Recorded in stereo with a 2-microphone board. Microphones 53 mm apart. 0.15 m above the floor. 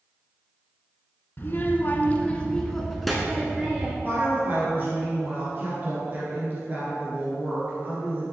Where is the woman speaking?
35° right (ahead or behind), 2 m.